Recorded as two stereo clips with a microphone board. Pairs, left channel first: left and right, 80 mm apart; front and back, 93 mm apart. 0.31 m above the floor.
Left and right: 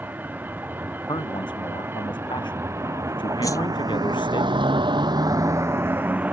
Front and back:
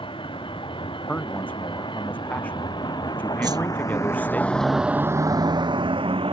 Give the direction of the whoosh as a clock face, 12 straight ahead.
7 o'clock.